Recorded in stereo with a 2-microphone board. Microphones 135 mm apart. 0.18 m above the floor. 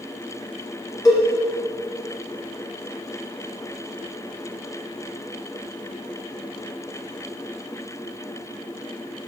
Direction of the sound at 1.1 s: 30° left (ahead or behind).